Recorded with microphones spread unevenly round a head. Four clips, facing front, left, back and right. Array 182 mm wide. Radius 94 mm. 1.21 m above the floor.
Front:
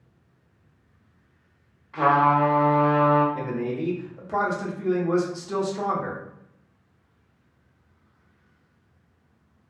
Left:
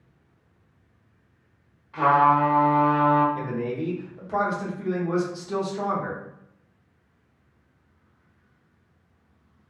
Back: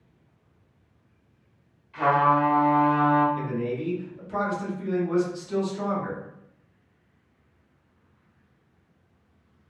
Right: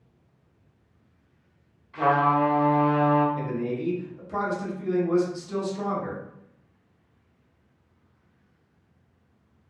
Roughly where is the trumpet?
Ahead left.